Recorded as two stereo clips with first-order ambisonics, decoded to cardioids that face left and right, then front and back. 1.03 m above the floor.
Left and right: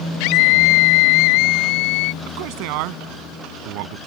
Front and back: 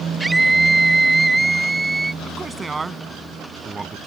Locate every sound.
0.2 s a scream: 95° left
2.2 s a man speaking: 100° right